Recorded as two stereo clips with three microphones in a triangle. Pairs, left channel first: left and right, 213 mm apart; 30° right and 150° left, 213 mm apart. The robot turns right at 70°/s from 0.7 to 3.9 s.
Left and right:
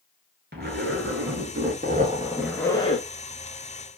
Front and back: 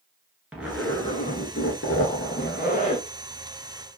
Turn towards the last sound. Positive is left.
turn(degrees=100)